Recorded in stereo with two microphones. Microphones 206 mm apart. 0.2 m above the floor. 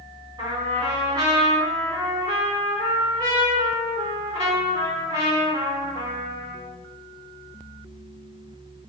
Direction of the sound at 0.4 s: 25° right (ahead or behind).